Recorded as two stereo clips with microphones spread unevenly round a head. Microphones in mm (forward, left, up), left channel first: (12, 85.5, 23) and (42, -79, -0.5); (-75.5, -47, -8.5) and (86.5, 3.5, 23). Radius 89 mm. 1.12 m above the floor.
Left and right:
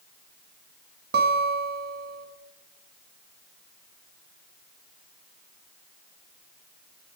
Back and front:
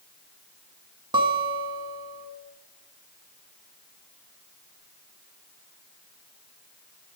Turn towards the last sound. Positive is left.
turn(degrees=-45)